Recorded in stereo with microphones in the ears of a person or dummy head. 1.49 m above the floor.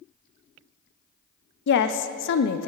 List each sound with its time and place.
1.7 s a woman speaking: 60° left (ahead or behind), 0.5 m